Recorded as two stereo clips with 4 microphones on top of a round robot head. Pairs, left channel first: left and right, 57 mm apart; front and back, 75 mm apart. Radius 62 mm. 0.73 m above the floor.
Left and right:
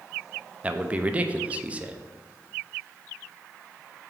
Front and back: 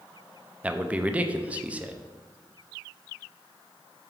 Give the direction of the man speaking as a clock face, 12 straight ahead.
4 o'clock.